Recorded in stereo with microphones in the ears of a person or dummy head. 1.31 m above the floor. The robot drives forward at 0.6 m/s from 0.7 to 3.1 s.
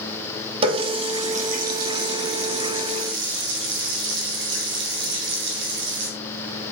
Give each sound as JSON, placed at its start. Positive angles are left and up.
{"t": 0.6, "sound": "a running tap", "side_deg": -40, "distance_m": 1.4}